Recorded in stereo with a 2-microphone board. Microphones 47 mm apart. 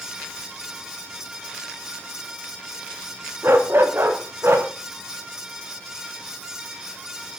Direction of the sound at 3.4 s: 55° right (ahead or behind).